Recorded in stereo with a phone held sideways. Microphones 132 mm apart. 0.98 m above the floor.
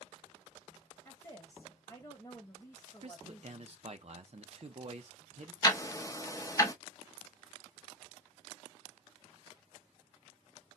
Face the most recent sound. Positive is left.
turn(degrees=25)  # may be behind; listen again after turning